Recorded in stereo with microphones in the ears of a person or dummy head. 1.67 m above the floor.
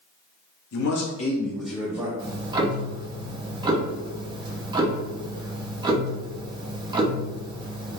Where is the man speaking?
80° left, 0.7 m; by 2.1 s 25° right (ahead or behind), 0.8 m.